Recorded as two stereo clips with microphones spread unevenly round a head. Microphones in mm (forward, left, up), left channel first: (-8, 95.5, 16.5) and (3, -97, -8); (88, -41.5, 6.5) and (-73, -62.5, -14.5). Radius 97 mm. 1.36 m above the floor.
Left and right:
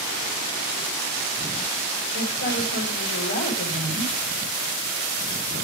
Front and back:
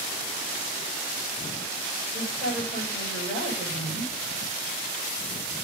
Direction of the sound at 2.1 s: 125° left.